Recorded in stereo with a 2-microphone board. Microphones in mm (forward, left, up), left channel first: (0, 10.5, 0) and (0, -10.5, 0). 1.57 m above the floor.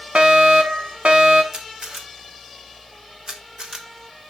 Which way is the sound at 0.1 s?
70° right (ahead or behind).